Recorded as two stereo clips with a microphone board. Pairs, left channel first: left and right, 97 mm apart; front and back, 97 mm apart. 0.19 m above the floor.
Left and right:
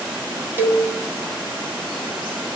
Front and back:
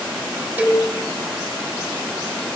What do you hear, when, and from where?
0.6 s a cowbell: 130° right, 1.0 m